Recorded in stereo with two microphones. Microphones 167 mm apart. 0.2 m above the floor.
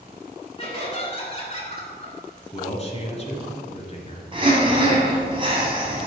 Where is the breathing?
30° right (ahead or behind), 1.9 m.